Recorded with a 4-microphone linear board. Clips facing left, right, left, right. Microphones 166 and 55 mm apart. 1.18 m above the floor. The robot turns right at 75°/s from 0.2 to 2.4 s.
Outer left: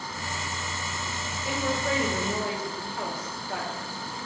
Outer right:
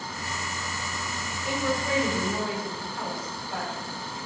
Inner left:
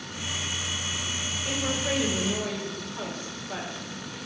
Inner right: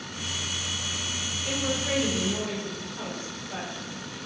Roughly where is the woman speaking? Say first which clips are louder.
Outer right 1 dB, even; ahead.